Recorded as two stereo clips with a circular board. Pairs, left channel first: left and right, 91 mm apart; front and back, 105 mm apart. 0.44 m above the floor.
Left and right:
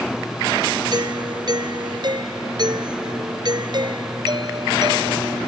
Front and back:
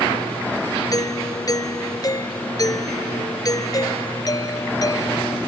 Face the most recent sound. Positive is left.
turn(degrees=-55)